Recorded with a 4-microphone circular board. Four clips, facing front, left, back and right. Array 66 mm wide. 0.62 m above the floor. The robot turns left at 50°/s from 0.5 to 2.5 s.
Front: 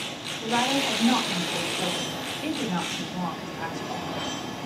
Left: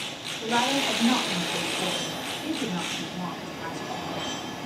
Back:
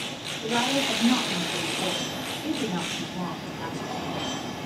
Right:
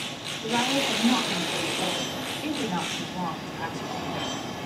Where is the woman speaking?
70° left, 3.5 m; by 4.3 s 30° right, 3.5 m.